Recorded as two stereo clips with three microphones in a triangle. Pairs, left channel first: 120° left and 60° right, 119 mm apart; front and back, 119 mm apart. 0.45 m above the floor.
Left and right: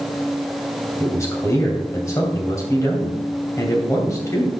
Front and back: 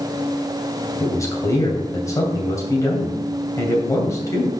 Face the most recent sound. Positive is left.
turn(degrees=55)